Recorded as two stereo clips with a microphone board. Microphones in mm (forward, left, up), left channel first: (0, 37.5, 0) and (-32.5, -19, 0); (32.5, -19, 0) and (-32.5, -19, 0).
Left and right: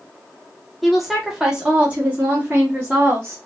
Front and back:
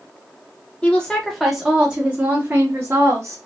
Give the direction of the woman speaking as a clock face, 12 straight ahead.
1 o'clock.